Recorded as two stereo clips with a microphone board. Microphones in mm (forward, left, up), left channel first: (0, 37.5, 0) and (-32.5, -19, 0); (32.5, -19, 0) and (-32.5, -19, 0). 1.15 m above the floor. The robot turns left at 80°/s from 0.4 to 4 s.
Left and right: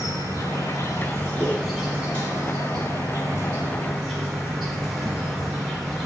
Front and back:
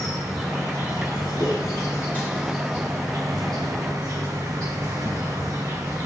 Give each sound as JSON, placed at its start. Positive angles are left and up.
{"t": 0.0, "sound": "an insect", "azimuth_deg": 80, "distance_m": 4.0}
{"t": 1.4, "sound": "a whoosh", "azimuth_deg": 25, "distance_m": 4.0}